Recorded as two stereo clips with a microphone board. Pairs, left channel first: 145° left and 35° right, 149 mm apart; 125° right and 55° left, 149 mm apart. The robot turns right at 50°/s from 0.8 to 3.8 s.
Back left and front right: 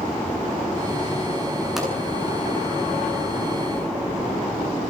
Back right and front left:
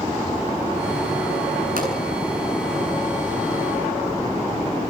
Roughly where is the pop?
Ahead left.